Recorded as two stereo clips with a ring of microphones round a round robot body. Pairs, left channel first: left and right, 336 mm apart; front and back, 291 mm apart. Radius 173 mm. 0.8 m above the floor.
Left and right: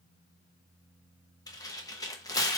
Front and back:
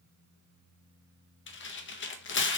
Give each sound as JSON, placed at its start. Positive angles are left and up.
{"t": 1.5, "sound": "tearing paper", "azimuth_deg": 15, "distance_m": 0.7}